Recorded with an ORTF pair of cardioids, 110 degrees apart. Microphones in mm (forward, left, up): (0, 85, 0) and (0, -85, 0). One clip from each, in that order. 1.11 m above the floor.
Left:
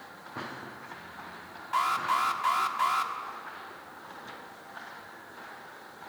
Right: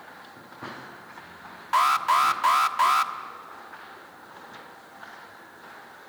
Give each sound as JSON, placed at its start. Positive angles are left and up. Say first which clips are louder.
{"t": 1.7, "sound": "an alarm", "louder": "right 6 dB", "azimuth_deg": -40, "distance_m": 1.3}